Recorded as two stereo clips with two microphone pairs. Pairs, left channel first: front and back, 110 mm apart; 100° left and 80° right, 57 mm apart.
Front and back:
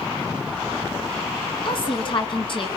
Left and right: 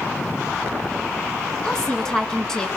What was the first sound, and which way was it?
A woman speaking, 25° left.